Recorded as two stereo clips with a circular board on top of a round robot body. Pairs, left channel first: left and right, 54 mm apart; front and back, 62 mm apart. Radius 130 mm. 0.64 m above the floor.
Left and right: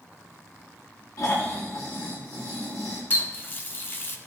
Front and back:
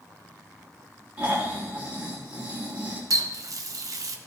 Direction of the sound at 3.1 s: 145° left.